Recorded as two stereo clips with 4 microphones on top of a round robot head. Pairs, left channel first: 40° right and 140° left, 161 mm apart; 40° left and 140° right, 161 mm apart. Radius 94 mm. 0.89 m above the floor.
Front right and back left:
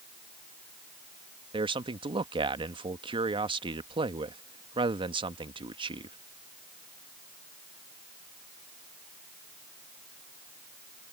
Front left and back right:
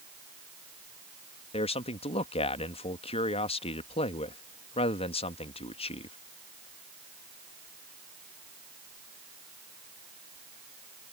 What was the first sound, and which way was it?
A man speaking, 85° left.